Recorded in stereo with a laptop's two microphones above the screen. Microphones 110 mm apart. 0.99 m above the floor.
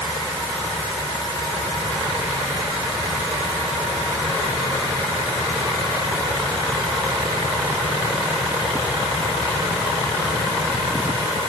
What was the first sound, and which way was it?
Only background noise.